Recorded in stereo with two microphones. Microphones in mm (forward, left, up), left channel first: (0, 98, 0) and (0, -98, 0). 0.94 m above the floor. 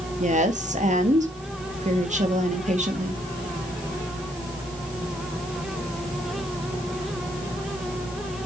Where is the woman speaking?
40° right (ahead or behind), 1.8 m.